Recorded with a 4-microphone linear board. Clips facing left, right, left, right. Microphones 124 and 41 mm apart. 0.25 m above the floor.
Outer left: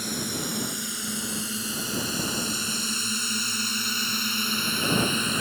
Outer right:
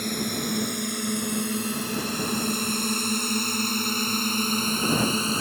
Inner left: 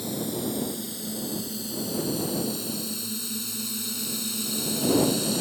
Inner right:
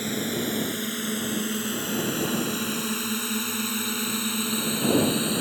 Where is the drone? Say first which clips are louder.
Outer right 3 dB, inner right 2 dB; 60° right (ahead or behind); by 5.4 s 35° right (ahead or behind).